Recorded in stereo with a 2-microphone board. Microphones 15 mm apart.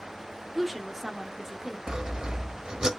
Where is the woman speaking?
5° right (ahead or behind), 1.2 m; by 1.8 s 25° right (ahead or behind), 1.5 m.